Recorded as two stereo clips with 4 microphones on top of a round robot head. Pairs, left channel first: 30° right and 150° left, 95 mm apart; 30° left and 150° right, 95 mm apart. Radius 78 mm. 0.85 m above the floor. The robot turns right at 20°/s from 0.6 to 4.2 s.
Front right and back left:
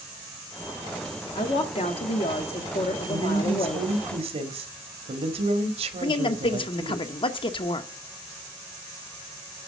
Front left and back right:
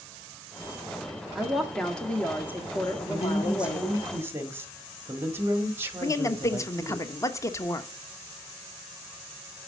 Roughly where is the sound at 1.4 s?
Ahead right.